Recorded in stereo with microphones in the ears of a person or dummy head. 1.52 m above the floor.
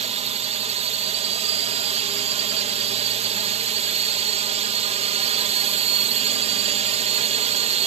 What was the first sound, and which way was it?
A drone, 35° right (ahead or behind).